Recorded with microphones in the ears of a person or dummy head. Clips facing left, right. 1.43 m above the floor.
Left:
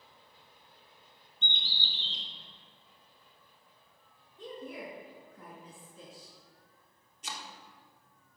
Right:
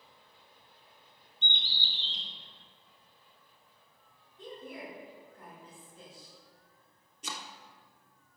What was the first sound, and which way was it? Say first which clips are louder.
A bird: even; 75° left (ahead or behind).